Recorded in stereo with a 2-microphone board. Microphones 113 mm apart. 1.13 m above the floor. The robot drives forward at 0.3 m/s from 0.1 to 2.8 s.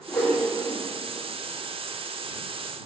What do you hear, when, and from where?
0.1 s a whoosh: 20° left (ahead or behind), 2 m